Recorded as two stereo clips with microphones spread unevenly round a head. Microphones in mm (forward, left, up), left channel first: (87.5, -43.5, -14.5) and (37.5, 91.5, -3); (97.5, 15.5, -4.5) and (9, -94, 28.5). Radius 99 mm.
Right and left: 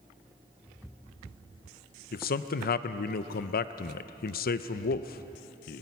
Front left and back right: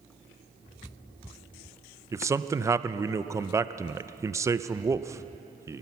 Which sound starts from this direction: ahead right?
A man speaking, at 2.1 s.